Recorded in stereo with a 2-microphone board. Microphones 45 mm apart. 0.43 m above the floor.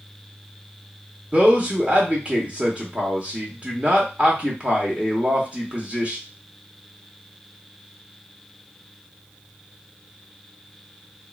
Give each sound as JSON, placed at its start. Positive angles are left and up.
{"t": 1.3, "sound": "a man speaking", "side_deg": -25, "distance_m": 0.8}